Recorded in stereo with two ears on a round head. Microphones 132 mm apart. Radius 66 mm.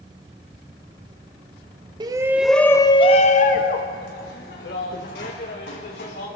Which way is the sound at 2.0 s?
30° right (ahead or behind).